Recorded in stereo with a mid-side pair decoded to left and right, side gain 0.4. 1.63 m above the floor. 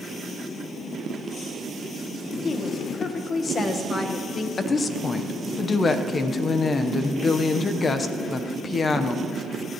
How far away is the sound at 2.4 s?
About 1.5 m.